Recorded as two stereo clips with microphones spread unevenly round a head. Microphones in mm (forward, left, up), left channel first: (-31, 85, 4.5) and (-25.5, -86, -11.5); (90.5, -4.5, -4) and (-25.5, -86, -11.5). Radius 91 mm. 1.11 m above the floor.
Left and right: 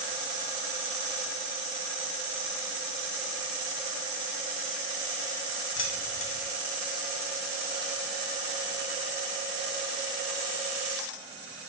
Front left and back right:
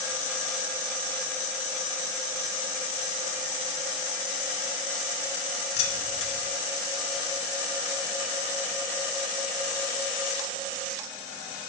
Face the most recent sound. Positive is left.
turn(degrees=70)